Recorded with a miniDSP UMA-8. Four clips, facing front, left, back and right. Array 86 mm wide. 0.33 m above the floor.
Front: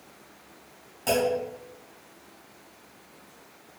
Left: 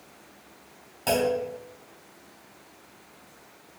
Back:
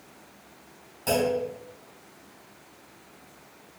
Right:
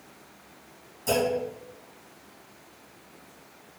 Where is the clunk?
80° left, 1.5 m.